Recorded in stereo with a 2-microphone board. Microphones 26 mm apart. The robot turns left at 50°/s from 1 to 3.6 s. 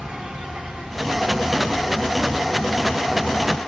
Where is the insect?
130° right, 1.0 m; by 3.7 s 100° left, 1.0 m.